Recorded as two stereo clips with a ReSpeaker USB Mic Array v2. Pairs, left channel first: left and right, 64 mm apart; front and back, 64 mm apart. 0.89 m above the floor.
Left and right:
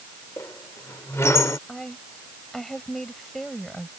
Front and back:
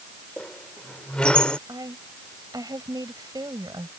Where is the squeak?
70° left.